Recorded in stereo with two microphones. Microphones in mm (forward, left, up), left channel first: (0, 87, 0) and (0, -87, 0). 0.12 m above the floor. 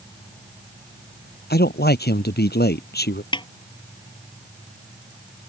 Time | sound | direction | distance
1.5 | a man speaking | 60° left (ahead or behind) | ?
3.3 | a snare drum | 25° left (ahead or behind) | ?